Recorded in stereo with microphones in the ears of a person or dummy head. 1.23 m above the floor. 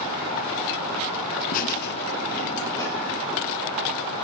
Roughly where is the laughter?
Left.